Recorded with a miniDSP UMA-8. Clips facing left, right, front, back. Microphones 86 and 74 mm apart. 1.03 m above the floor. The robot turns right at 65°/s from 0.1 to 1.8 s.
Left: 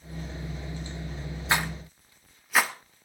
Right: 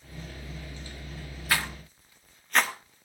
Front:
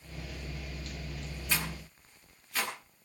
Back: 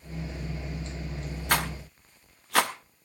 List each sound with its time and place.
1.5 s a rattle: 155° left, 1.0 m; by 3.0 s 175° left, 1.0 m